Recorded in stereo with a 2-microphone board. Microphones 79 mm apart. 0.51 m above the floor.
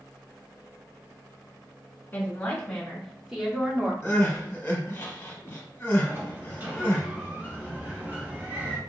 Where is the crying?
25° left (ahead or behind), 1.0 m.